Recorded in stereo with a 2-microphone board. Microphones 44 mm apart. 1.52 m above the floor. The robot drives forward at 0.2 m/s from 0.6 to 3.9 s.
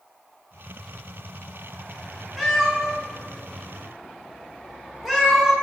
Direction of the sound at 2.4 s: 5° right (ahead or behind).